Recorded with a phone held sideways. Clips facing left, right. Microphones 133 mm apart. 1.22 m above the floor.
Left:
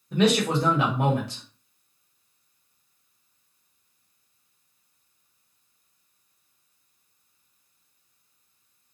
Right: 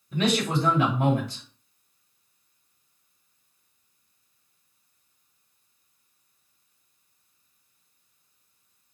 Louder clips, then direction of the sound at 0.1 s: Left 3 dB; 75° left (ahead or behind).